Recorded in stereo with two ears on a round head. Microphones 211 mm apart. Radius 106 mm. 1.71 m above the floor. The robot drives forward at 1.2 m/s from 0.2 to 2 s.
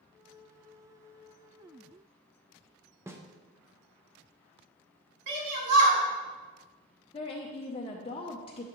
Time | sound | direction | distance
3.1 | a snare drum | 10° right (ahead or behind) | 0.6 m
5.3 | a shout | 85° right | 3.5 m
7.1 | a woman speaking | 25° left (ahead or behind) | 0.6 m